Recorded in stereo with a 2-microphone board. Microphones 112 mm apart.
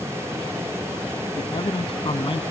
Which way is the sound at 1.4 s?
50° left (ahead or behind).